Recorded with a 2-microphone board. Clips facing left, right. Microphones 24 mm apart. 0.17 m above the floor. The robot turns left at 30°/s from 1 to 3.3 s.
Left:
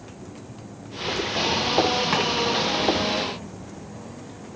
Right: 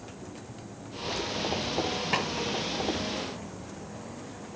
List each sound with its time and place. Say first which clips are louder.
2.1 s chopping: left 2 dB; 65° left (ahead or behind), 2.5 m